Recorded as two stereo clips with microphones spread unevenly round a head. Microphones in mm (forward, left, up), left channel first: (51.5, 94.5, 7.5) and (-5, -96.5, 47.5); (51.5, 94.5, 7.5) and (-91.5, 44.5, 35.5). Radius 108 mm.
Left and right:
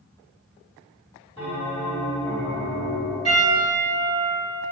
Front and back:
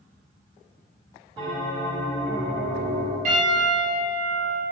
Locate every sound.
1.4 s a bell: 135° left, 1.7 m
3.2 s a piano: 170° left, 1.9 m